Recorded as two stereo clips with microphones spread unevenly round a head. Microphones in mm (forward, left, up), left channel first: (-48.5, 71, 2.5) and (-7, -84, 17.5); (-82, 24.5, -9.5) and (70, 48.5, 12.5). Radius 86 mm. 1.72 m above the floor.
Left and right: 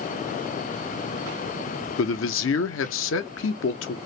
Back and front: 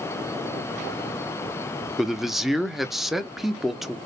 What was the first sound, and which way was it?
A man speaking, 95° left.